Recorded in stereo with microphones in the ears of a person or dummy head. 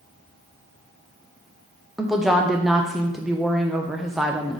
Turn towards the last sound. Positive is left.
turn(degrees=0)  # may be behind; listen again after turning